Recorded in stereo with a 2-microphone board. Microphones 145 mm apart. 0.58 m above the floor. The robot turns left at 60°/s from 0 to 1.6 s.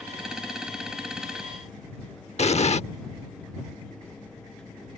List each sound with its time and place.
2.4 s an explosion: 50° left (ahead or behind)